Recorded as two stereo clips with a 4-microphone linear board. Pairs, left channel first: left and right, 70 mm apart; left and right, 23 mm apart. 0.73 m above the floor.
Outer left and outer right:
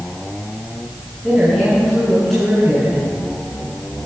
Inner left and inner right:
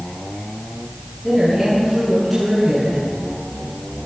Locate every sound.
1.2 s a woman speaking: centre (ahead or behind), 5.5 m